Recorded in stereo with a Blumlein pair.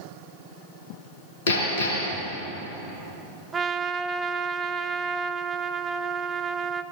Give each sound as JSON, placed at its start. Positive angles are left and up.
{"t": 1.5, "sound": "hammering", "azimuth_deg": 60, "distance_m": 4.0}
{"t": 3.5, "sound": "a trumpet", "azimuth_deg": -20, "distance_m": 0.5}